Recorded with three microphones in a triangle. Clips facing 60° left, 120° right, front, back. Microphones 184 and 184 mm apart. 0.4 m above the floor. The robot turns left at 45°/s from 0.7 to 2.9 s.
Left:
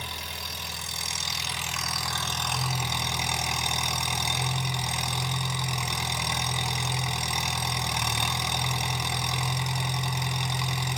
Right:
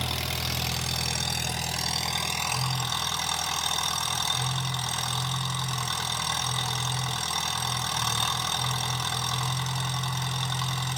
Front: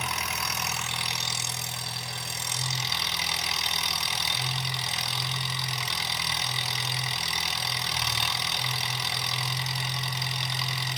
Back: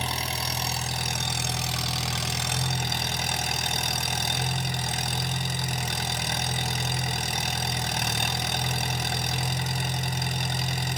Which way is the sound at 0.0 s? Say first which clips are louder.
Right 7 dB, back 3 dB; 125° right.